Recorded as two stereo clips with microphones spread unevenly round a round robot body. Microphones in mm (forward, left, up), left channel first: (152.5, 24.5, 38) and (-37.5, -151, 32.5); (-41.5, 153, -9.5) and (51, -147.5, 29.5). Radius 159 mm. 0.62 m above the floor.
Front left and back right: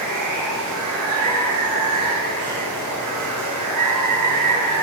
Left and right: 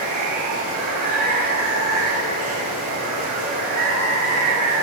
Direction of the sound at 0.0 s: 140° right.